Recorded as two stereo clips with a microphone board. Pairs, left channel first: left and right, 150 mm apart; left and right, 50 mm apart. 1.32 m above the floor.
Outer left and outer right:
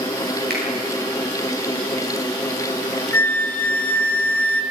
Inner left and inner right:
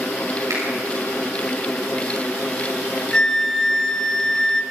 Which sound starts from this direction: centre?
A flute, at 3.1 s.